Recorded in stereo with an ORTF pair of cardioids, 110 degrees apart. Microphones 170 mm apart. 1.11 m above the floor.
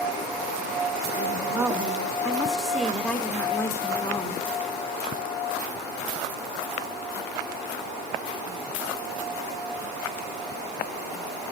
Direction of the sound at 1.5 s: 15° right.